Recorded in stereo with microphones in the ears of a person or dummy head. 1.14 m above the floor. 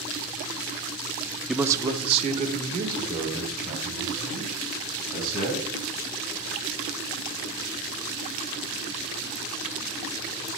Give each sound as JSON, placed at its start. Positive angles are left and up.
{"t": 1.5, "sound": "a man speaking", "side_deg": 0, "distance_m": 0.5}